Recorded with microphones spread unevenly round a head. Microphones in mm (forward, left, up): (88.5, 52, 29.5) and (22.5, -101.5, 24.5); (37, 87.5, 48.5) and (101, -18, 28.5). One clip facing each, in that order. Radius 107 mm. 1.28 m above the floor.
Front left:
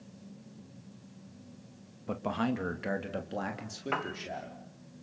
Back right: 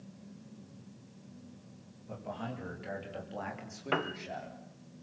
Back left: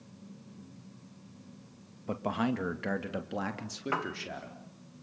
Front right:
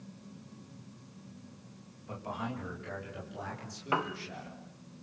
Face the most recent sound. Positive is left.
turn(degrees=-140)